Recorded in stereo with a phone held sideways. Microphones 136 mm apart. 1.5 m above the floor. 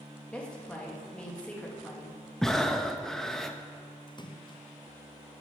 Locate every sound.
0.3 s a woman speaking: 10° left (ahead or behind), 2.5 m
2.4 s breathing: 5° left (ahead or behind), 0.8 m
4.1 s a splash: 35° left (ahead or behind), 0.7 m